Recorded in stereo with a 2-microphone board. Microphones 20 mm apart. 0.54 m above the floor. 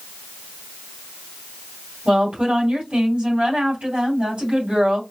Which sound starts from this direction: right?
A woman speaking, at 2.0 s.